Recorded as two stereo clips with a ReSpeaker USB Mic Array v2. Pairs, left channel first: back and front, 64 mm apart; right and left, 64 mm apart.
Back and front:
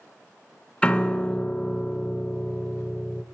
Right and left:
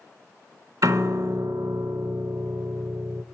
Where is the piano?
110° left, 0.6 m.